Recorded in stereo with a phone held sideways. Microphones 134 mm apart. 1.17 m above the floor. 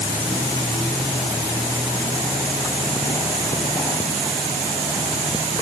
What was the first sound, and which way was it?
Only background noise.